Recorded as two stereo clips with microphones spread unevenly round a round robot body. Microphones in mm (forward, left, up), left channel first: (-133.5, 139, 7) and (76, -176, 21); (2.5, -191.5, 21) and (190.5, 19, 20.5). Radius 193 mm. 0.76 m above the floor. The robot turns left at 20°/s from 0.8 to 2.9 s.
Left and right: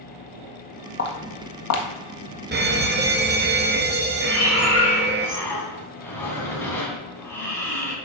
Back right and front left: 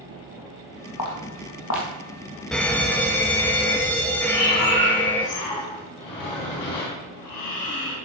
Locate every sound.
1.0 s footsteps: 170° right, 1.6 m; by 1.9 s 170° left, 1.6 m
2.5 s a fire alarm: 50° right, 1.4 m; by 5.3 s 55° right, 1.4 m
4.3 s breathing: 150° right, 2.5 m